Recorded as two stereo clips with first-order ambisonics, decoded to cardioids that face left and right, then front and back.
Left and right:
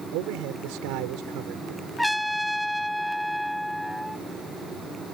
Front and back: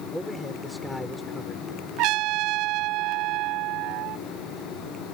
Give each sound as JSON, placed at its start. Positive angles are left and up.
{"t": 0.1, "sound": "a man speaking", "azimuth_deg": -90}
{"t": 2.0, "sound": "a trumpet", "azimuth_deg": 175}